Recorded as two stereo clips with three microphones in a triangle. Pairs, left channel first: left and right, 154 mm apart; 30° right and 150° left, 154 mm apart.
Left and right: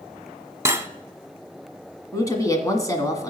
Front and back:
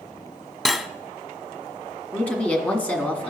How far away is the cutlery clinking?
About 0.6 m.